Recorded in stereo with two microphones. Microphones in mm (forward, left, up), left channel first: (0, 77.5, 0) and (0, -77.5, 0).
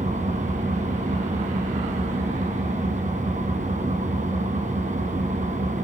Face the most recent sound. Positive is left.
turn(degrees=-55)  # may be behind; listen again after turning